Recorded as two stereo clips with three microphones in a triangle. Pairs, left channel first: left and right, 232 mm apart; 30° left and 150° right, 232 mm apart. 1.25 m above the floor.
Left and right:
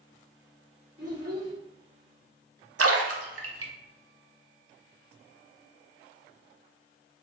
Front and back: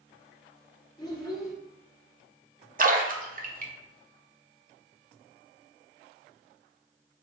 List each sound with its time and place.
1.0 s a child speaking: 40° right, 1.5 m
2.8 s a splash: 95° right, 0.6 m